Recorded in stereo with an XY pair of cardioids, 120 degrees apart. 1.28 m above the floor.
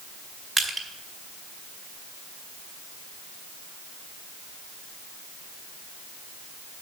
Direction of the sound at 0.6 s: 20° right.